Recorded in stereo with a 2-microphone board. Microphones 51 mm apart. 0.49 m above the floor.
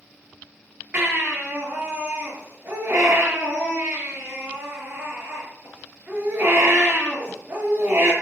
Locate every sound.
0.9 s a baby crying: 40° right (ahead or behind), 7 m